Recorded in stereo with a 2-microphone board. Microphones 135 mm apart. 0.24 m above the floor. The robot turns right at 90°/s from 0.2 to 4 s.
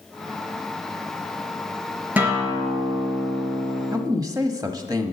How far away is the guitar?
About 3.5 m.